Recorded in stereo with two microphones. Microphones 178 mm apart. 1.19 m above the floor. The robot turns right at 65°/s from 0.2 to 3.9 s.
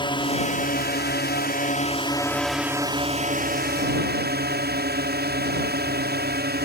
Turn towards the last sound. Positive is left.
turn(degrees=-90)